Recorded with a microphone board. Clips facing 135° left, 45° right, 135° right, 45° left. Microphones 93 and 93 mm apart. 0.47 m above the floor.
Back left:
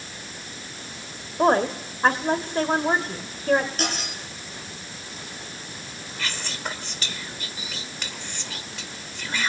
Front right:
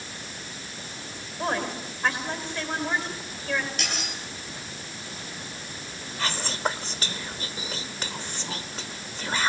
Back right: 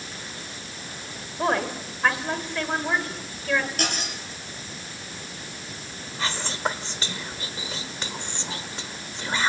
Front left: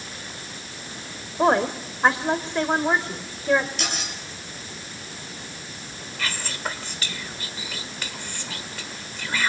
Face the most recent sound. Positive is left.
turn(degrees=-80)